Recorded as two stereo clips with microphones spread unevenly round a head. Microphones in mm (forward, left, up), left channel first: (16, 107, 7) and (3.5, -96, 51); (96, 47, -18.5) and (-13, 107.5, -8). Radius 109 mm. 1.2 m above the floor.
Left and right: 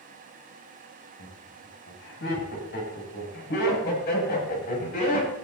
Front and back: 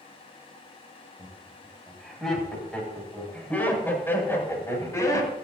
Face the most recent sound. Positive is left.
turn(degrees=35)